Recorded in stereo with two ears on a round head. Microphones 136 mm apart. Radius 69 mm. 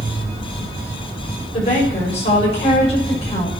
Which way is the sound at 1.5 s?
45° left (ahead or behind).